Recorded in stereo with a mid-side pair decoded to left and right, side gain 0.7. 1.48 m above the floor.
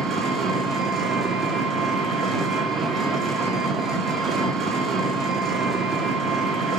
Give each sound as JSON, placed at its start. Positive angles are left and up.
{"t": 0.0, "sound": "an engine running", "azimuth_deg": -35, "distance_m": 0.7}